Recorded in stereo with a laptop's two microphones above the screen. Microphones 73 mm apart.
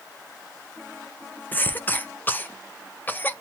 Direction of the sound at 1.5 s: 25° left (ahead or behind).